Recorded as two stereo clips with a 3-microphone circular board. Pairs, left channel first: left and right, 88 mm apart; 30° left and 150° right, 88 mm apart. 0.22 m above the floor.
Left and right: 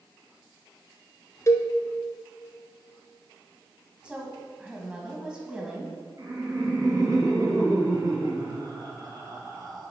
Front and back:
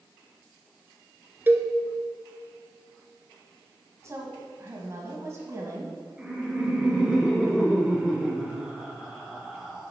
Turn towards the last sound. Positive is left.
turn(degrees=-70)